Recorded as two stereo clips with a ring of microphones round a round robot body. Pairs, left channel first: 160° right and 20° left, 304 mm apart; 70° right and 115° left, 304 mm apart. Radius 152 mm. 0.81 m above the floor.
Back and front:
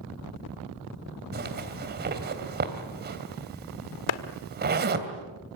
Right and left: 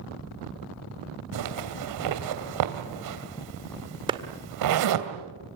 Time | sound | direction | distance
1.3 | a zipper | 85° left | 2.5 m
4.1 | a clap | 170° right | 1.6 m